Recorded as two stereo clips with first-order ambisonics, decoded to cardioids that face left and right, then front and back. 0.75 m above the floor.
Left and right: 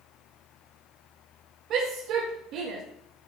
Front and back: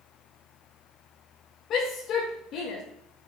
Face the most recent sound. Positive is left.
turn(degrees=-50)